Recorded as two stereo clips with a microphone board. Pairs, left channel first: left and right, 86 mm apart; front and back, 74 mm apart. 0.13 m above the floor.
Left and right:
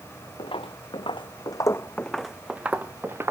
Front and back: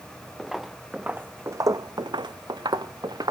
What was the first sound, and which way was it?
Footsteps, 90° left.